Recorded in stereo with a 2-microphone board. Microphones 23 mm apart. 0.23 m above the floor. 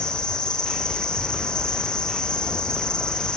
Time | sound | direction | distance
0.0 | an insect | 40° left (ahead or behind) | 9 m